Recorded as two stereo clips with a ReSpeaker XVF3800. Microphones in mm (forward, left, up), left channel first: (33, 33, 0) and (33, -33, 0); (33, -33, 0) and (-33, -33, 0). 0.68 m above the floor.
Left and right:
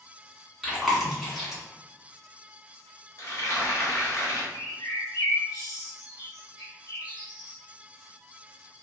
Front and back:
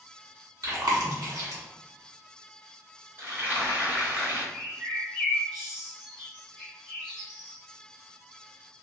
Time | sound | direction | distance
0.6 | chewing | 175° right | 1.1 m
3.2 | frying | 125° left | 0.9 m
4.5 | a bird | 100° left | 1.0 m